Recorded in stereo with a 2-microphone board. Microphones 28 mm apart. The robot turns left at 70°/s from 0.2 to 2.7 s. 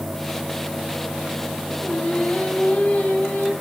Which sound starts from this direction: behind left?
Singing, at 1.8 s.